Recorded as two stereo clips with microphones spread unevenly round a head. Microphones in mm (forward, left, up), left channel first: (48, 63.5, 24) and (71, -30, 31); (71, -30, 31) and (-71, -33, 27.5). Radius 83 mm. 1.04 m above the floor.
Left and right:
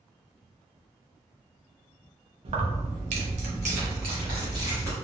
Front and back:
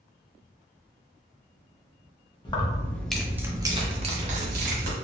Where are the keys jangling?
60° right, 0.8 m; by 4.9 s 150° right, 1.1 m.